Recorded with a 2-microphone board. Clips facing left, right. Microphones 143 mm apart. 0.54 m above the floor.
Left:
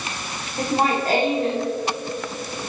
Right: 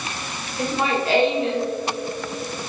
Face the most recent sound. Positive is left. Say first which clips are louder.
# left 2 dB
turn(degrees=45)  # may be behind; listen again after turning